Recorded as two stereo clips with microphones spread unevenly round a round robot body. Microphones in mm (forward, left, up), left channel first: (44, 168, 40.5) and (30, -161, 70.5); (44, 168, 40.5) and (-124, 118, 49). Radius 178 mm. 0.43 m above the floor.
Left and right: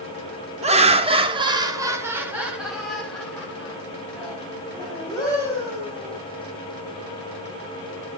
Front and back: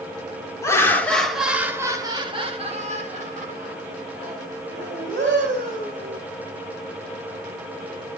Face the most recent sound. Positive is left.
turn(degrees=165)